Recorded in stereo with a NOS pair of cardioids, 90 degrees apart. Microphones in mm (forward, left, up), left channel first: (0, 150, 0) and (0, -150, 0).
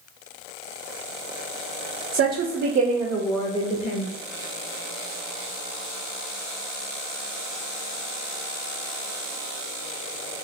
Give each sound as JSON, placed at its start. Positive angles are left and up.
{"t": 2.1, "sound": "a woman speaking", "azimuth_deg": -55, "distance_m": 0.7}